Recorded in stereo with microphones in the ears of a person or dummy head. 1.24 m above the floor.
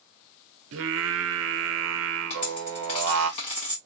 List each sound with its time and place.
0.7 s singing: 70° right (ahead or behind), 0.7 m
2.3 s a dropped coin: 25° left (ahead or behind), 0.7 m